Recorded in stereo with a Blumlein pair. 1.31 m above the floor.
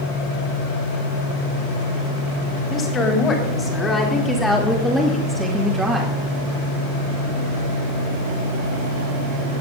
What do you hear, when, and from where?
2.7 s a woman speaking: 25° left, 3.5 m; by 6.1 s 15° right, 2.5 m